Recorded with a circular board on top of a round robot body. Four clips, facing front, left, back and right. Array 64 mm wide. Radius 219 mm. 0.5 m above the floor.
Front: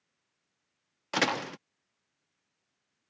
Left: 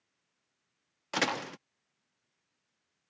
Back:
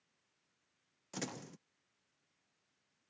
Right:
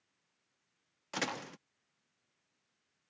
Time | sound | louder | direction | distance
1.1 | a door slam | left 7 dB, front 16 dB | 25° left | ?